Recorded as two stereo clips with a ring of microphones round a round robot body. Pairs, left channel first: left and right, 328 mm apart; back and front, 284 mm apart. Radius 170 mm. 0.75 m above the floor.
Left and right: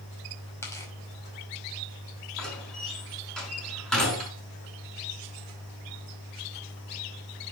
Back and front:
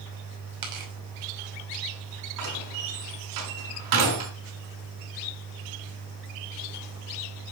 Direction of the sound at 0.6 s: 10° left.